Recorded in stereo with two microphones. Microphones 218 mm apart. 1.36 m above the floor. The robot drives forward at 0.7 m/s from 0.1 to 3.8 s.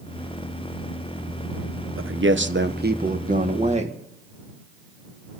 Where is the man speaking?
70° right (ahead or behind), 1.0 m; by 4.0 s 30° right (ahead or behind), 1.7 m.